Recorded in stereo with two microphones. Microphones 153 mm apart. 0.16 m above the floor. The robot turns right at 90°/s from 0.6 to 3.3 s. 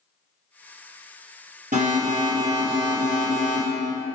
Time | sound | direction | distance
1.7 | an alarm | 100° right | 4.5 m